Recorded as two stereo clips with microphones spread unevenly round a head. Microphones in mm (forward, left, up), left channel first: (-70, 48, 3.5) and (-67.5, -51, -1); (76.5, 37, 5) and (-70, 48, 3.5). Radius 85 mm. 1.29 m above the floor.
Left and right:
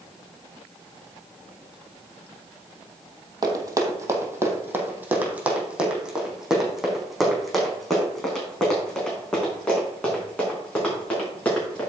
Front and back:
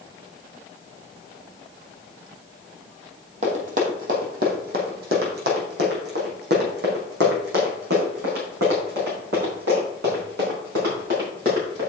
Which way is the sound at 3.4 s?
140° right.